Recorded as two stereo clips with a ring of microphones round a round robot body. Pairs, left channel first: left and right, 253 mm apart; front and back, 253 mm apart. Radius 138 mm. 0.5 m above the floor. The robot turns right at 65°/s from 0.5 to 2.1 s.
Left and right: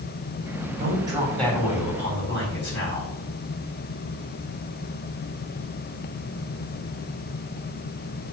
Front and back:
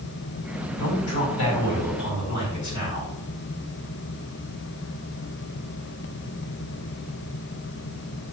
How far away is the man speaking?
About 3.5 m.